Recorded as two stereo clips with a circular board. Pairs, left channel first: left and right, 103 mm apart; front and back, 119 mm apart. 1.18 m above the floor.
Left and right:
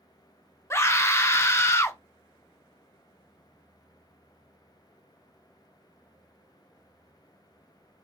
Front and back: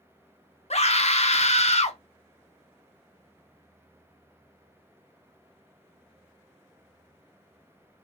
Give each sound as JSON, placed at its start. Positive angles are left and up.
{"t": 0.7, "sound": "a scream", "azimuth_deg": 25, "distance_m": 0.6}